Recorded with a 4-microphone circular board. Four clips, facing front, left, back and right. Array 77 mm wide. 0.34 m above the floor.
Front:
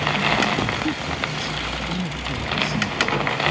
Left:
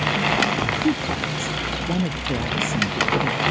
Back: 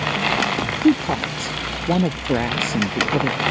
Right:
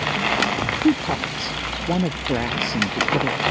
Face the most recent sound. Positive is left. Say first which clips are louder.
# right 3 dB, back 8 dB
turn(degrees=-155)